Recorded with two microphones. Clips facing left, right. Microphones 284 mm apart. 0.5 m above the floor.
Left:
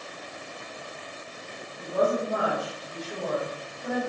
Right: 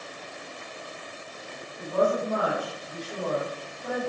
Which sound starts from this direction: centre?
A woman speaking, at 1.8 s.